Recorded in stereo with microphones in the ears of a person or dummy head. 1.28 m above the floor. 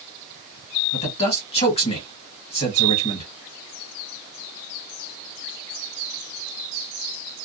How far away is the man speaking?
About 1.3 m.